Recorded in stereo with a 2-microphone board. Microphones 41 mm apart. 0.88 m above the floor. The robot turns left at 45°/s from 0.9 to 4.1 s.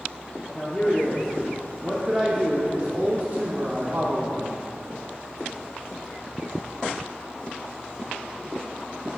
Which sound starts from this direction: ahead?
A man speaking, at 0.5 s.